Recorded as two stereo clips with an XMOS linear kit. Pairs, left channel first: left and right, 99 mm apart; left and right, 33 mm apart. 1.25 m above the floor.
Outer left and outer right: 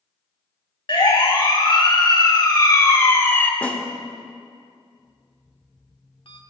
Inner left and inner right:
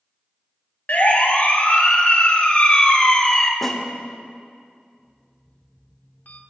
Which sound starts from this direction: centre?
A snare drum, at 3.6 s.